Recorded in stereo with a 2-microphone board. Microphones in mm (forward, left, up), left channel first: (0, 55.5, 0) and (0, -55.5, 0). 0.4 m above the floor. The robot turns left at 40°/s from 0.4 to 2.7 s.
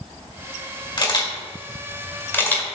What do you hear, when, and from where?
1.0 s a camera shutter: 45° left (ahead or behind), 1.6 m; by 2.7 s 10° left (ahead or behind), 1.6 m